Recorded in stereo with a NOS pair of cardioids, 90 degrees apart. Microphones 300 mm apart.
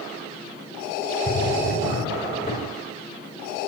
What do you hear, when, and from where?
1.3 s a drawer: 30° left, 5 m